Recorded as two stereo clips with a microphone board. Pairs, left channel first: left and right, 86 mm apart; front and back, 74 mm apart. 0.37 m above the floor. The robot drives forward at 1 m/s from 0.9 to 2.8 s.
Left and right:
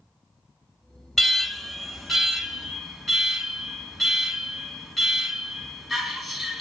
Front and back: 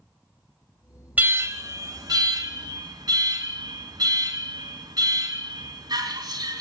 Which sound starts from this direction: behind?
An alarm, at 1.2 s.